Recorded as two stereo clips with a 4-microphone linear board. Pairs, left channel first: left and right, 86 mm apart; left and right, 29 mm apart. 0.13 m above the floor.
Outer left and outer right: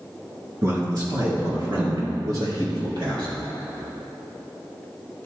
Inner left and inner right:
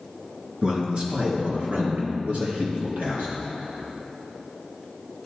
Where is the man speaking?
35° right (ahead or behind), 1.8 m; by 3.3 s 65° right (ahead or behind), 3.5 m.